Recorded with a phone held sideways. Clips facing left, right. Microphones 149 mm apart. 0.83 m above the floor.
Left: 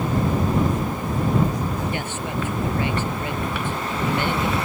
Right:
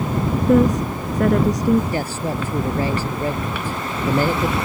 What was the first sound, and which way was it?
A woman speaking, 85° right.